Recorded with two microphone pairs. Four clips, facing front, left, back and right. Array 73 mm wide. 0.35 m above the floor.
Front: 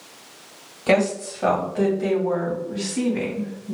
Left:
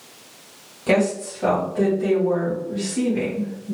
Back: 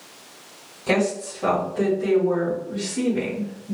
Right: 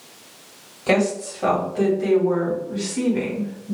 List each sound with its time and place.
0.9 s a woman speaking: 20° right, 1.8 m; by 3.8 s 15° right, 3 m